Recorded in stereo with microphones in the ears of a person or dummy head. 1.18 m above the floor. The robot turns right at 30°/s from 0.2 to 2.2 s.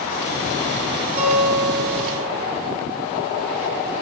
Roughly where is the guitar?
Ahead right.